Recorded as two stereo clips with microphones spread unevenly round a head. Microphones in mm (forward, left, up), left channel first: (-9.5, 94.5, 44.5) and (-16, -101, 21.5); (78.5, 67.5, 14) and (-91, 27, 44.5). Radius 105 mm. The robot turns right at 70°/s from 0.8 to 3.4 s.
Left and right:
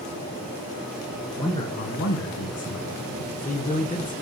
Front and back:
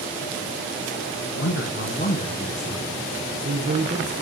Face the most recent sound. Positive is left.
turn(degrees=155)